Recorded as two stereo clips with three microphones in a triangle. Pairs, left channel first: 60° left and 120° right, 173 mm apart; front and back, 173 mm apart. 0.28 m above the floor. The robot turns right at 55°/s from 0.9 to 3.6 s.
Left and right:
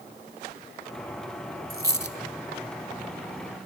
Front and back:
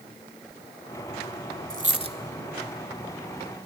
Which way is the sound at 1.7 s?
150° right.